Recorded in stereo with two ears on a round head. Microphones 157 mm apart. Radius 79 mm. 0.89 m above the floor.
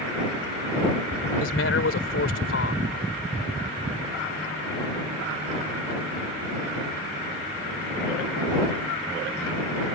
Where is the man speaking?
80° left.